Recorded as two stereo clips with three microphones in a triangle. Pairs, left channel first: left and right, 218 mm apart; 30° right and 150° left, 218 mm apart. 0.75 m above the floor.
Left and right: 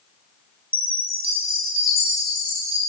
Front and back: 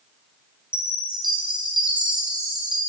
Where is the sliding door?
No sliding door in this recording.